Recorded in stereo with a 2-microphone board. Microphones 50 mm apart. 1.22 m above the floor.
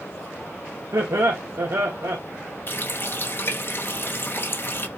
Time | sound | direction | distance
0.9 | laughter | 75° right (ahead or behind) | 1.8 m
2.7 | a running tap | 45° left (ahead or behind) | 1.1 m